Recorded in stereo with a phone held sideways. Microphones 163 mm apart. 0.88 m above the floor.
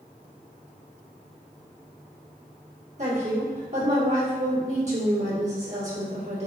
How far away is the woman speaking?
About 1.7 m.